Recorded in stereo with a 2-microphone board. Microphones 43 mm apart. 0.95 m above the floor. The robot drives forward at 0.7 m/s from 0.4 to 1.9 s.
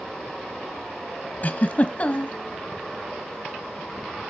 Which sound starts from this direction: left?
A giggle, at 1.4 s.